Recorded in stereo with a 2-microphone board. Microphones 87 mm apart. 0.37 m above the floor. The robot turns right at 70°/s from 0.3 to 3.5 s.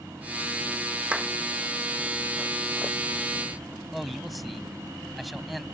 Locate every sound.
1.1 s a clap: 15° right (ahead or behind); by 1.3 s centre (ahead or behind)
3.9 s a man speaking: centre (ahead or behind)